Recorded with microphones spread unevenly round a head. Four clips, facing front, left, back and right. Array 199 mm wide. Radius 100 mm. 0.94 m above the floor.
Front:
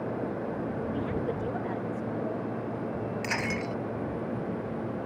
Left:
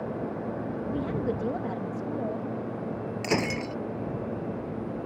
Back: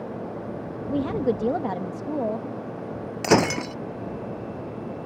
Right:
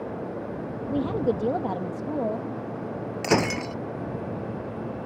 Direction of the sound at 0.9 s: 150° right.